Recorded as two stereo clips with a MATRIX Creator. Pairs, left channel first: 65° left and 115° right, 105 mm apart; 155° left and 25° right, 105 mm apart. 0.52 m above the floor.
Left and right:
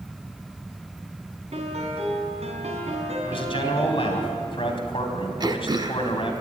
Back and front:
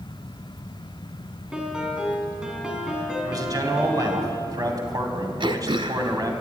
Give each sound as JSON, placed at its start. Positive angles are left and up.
{"t": 1.5, "sound": "a piano", "azimuth_deg": -105, "distance_m": 3.0}
{"t": 3.2, "sound": "a man speaking", "azimuth_deg": 30, "distance_m": 3.0}
{"t": 5.4, "sound": "throat clearing", "azimuth_deg": -65, "distance_m": 1.0}